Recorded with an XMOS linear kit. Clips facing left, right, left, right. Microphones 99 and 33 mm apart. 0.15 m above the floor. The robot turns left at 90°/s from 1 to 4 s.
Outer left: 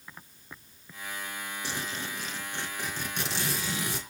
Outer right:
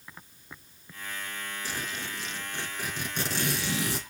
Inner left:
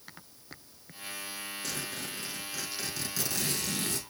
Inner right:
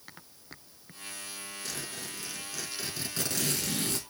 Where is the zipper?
105° left, 4 m; by 4.0 s 105° right, 4 m.